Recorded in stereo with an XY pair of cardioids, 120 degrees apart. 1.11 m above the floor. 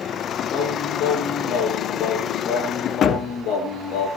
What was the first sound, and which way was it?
Singing, 70° left.